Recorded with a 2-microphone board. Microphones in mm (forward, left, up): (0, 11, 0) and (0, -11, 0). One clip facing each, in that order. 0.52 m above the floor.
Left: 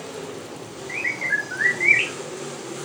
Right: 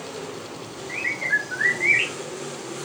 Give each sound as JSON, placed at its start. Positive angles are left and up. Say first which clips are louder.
{"t": 0.9, "sound": "a bird", "louder": "even", "side_deg": 20, "distance_m": 0.9}